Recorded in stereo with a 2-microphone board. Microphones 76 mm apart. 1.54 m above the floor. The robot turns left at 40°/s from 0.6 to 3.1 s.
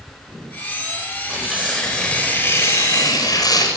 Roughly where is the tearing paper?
Behind.